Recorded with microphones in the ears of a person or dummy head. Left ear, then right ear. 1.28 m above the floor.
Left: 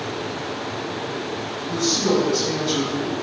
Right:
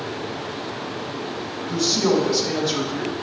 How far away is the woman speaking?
About 3 m.